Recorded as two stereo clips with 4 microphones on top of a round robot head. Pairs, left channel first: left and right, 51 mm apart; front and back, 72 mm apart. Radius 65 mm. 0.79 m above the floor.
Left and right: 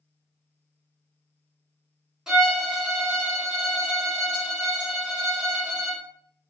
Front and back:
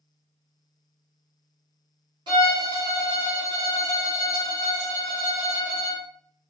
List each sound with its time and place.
2.3 s a violin: 165° right, 1.9 m